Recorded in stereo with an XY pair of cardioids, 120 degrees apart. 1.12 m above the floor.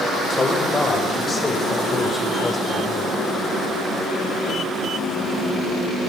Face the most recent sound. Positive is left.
turn(degrees=0)